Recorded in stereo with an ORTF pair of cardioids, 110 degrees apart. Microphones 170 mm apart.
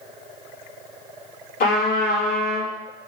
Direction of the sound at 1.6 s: 60° left.